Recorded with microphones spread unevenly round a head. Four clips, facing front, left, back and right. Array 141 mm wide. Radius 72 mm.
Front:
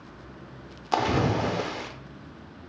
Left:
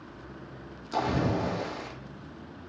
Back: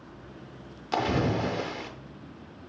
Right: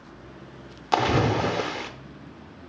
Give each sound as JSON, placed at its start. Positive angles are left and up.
{"t": 0.9, "sound": "a splash", "azimuth_deg": -75, "distance_m": 0.6}